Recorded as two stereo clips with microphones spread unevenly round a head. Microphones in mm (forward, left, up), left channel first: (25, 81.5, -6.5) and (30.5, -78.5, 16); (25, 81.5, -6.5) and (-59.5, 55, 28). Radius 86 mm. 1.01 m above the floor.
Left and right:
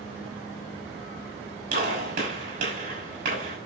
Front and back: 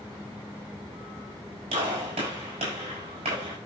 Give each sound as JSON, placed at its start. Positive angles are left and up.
{"t": 1.7, "sound": "a gunshot", "azimuth_deg": -135, "distance_m": 6.0}